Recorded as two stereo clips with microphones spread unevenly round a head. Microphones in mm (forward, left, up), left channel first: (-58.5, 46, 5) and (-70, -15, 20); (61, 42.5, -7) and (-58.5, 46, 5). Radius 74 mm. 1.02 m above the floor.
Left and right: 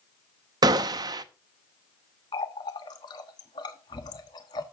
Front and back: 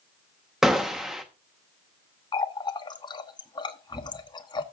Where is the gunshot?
95° right, 0.7 m.